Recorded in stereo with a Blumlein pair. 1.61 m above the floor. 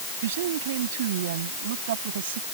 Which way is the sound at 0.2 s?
55° right.